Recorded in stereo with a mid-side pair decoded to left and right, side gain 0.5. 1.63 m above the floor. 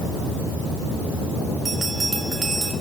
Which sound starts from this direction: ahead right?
A bell, at 1.6 s.